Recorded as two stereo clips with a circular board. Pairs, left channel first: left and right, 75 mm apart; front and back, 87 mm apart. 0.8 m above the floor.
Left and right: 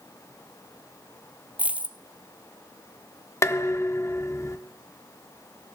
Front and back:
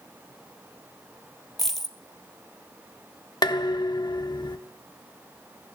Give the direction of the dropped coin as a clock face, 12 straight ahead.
3 o'clock.